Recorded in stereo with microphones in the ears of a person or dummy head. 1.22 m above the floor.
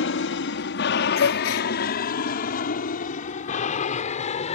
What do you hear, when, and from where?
0.0 s an aircraft: 55° left (ahead or behind); by 4.6 s 35° left (ahead or behind)
1.2 s a gasp: 65° left (ahead or behind)